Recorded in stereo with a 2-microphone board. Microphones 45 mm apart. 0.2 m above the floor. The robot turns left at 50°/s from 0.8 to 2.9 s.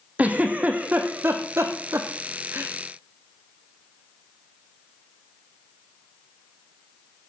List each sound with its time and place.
0.2 s a giggle: 35° right (ahead or behind), 2 m; by 2.7 s 50° right (ahead or behind), 2 m